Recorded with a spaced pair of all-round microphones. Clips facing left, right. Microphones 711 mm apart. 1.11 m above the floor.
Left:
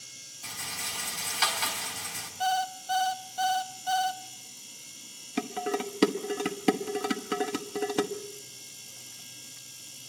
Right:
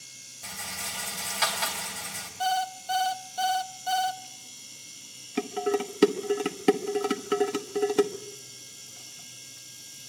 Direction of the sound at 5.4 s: 5° left (ahead or behind).